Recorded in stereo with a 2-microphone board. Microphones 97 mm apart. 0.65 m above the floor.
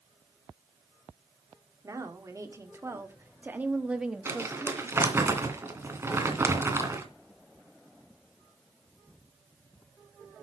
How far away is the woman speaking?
About 2 m.